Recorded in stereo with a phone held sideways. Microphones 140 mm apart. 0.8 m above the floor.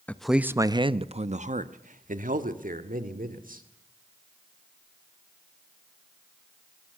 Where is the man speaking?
10° left (ahead or behind), 0.7 m; by 3.6 s 80° right, 2.5 m.